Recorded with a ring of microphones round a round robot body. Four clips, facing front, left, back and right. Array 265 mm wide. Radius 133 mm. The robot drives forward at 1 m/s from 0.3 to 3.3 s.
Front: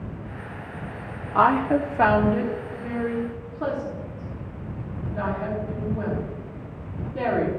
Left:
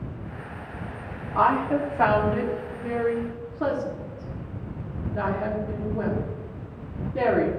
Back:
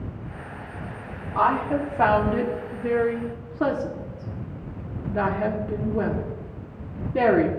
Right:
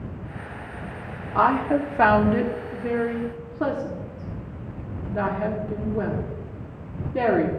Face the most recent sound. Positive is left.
turn(degrees=-155)